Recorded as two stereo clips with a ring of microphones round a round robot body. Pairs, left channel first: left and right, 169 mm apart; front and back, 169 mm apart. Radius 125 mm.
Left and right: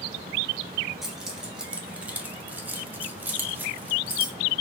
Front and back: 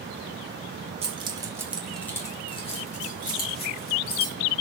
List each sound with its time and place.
1.0 s keys jangling: 175° right, 0.8 m; by 4.3 s 10° right, 1.5 m